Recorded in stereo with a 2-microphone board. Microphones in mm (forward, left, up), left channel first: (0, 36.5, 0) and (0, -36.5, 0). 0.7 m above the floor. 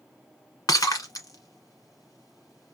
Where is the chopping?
No chopping in this recording.